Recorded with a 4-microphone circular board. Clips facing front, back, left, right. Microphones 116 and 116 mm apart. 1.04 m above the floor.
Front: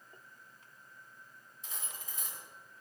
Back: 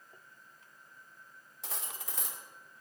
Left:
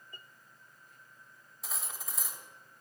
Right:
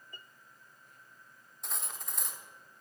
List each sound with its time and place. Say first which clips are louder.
1.6 s cutlery clinking: back 5 dB, even; 175° left, 1.5 m